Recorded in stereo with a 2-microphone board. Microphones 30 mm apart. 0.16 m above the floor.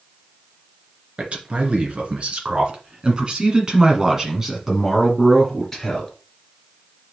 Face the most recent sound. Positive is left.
turn(degrees=10)  # may be behind; listen again after turning